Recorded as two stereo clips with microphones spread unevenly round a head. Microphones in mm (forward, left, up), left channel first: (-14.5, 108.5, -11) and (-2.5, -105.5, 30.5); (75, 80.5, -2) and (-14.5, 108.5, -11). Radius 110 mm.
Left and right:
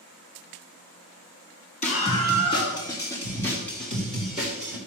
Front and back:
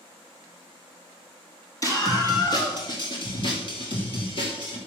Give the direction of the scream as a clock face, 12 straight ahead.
11 o'clock.